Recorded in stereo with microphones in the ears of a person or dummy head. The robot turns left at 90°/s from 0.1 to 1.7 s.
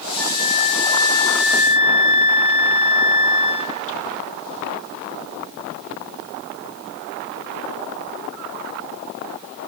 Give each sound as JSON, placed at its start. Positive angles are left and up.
{"t": 0.2, "sound": "a flute", "azimuth_deg": 175, "distance_m": 1.7}